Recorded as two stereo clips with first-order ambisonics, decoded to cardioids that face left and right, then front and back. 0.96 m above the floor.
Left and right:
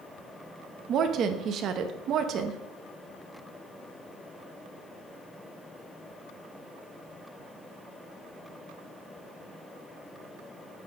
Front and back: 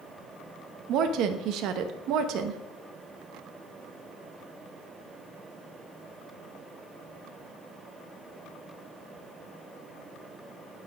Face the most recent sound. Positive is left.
turn(degrees=-140)